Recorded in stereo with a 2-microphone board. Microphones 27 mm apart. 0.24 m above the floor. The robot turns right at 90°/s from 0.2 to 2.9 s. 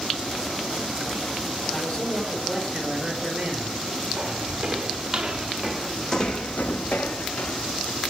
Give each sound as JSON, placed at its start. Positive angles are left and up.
{"t": 1.7, "sound": "a man speaking", "azimuth_deg": 90, "distance_m": 5.0}
{"t": 4.2, "sound": "footsteps", "side_deg": -25, "distance_m": 2.5}